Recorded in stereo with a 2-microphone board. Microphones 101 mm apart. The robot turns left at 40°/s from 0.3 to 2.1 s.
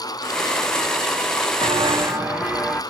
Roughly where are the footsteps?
Right.